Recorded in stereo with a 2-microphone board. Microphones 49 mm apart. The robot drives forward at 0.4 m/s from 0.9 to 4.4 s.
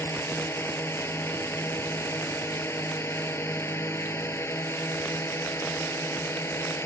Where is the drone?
60° left (ahead or behind); by 6.9 s 65° left (ahead or behind).